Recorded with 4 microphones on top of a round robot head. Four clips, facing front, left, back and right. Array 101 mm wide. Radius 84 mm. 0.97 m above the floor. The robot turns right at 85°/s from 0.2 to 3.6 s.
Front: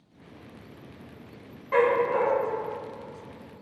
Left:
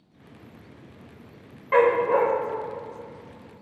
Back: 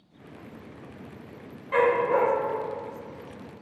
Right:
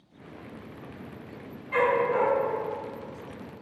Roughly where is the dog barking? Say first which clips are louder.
Left 5 dB, even; left.